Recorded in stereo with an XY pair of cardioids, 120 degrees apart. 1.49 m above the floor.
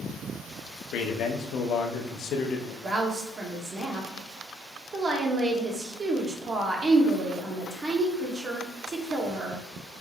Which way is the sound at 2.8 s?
35° right.